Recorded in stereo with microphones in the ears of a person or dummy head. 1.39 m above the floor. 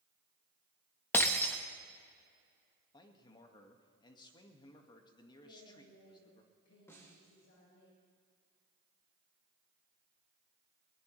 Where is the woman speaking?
75° left (ahead or behind), 5 m.